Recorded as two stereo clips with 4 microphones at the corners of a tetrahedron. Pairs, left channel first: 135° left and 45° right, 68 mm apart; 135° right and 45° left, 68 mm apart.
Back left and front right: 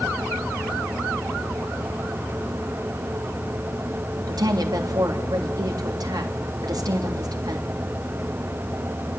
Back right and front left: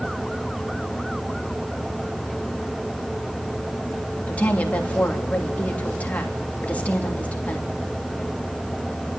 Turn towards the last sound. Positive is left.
turn(degrees=-65)